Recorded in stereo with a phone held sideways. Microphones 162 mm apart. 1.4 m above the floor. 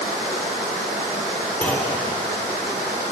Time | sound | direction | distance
1.6 | a clunk | 10° left (ahead or behind) | 3.5 m